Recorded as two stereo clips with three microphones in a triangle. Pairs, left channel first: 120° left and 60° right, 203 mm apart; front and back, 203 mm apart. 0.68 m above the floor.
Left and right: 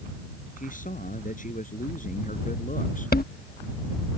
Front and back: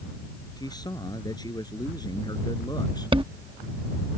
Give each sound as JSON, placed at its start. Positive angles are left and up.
{"t": 0.6, "sound": "a man speaking", "azimuth_deg": 70}
{"t": 3.1, "sound": "a chime", "azimuth_deg": 125}